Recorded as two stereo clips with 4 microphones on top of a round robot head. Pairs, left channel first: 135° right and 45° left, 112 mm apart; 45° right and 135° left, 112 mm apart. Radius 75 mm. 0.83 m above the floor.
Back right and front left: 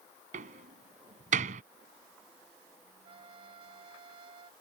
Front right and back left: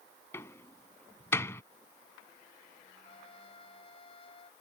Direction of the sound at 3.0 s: Straight ahead.